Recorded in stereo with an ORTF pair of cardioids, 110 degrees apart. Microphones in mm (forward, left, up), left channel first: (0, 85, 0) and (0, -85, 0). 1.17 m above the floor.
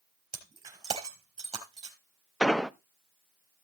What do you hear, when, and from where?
0.3 s breaking glass: 25° right, 4 m
2.4 s an explosion: straight ahead, 0.7 m